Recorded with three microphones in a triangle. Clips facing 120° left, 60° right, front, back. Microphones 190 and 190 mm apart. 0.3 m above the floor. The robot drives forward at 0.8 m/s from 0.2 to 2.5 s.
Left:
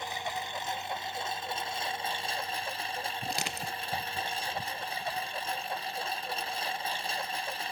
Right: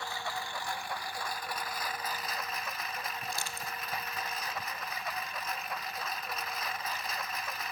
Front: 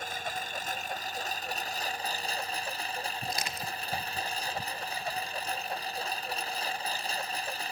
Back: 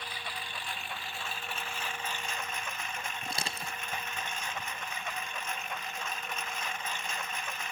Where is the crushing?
115° left.